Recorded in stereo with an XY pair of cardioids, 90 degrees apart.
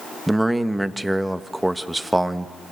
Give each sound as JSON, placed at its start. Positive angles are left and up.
{"t": 0.3, "sound": "a man speaking", "azimuth_deg": -10, "distance_m": 1.5}